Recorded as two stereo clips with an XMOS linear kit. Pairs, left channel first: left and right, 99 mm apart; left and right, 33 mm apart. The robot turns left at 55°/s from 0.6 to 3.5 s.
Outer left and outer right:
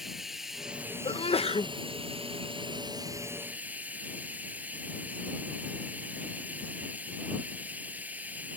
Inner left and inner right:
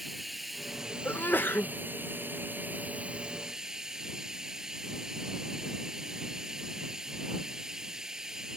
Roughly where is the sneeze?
Behind left.